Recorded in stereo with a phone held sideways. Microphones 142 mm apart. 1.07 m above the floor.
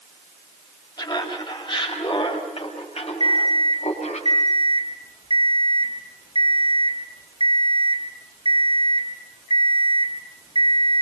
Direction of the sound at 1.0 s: 30° left (ahead or behind).